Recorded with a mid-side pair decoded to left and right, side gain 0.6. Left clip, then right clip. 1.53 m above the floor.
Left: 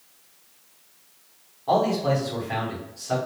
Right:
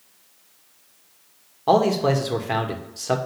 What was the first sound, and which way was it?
A man speaking, 55° right.